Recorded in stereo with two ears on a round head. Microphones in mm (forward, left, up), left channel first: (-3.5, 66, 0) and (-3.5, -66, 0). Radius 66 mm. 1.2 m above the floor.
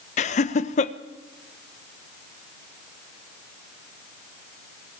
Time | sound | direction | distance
0.2 | laughter | 50° left (ahead or behind) | 1.1 m